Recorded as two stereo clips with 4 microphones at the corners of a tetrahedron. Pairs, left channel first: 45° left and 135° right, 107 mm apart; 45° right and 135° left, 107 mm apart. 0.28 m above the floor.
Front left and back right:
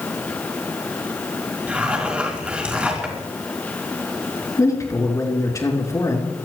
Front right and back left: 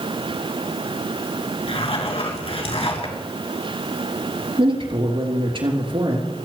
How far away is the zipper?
About 4.5 m.